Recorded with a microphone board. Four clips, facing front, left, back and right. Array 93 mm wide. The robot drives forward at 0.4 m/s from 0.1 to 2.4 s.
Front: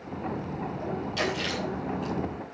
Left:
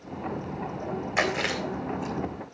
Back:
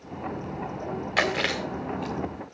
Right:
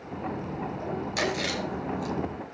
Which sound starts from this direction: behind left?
Chewing, at 1.2 s.